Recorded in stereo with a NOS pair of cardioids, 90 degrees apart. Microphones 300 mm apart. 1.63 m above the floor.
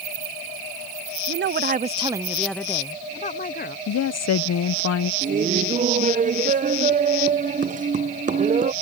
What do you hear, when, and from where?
1.3 s a woman speaking: 45° right; by 3.8 s 35° left
3.9 s a woman speaking: 55° left
5.2 s laughter: 25° right